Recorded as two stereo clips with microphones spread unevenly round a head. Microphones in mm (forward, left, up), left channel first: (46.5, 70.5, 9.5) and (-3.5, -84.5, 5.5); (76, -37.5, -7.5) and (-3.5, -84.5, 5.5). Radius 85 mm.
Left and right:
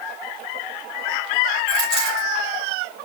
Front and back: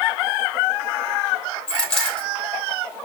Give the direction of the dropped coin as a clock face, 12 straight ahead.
2 o'clock.